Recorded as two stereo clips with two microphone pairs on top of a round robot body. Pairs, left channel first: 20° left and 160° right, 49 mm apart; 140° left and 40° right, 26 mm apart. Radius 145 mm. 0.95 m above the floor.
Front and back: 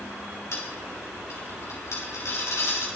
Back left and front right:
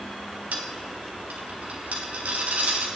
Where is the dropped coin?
5° right, 1.2 m.